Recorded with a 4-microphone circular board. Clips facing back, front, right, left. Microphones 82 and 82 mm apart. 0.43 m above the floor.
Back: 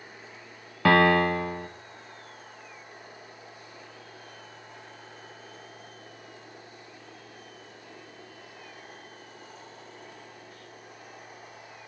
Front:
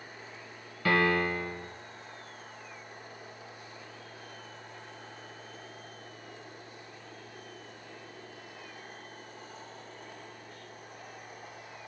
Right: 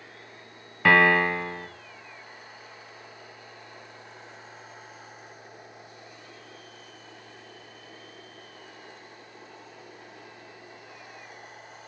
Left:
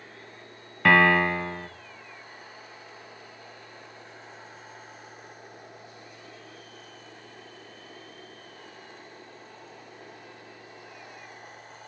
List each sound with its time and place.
0.8 s a piano: straight behind, 0.7 m